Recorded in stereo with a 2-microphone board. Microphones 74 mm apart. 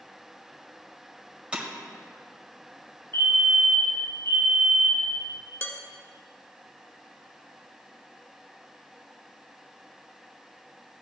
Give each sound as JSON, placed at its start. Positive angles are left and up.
{"t": 1.5, "sound": "breaking glass", "side_deg": -15, "distance_m": 1.8}
{"t": 3.1, "sound": "a fire alarm", "side_deg": 35, "distance_m": 4.5}
{"t": 5.6, "sound": "dishes clattering", "side_deg": 30, "distance_m": 1.2}